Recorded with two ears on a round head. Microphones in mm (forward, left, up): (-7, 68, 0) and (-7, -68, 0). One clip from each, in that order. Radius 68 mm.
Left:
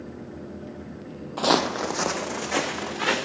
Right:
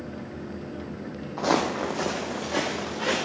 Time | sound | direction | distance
1.4 | footsteps | 55° left (ahead or behind) | 0.8 m